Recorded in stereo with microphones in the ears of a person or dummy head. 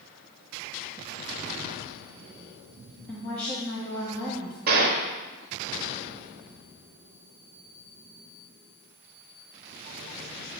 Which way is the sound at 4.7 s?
50° right (ahead or behind).